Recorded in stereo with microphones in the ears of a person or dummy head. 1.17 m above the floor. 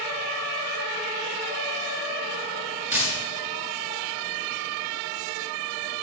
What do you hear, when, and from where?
2.9 s a dropped coin: 15° right (ahead or behind), 6.5 m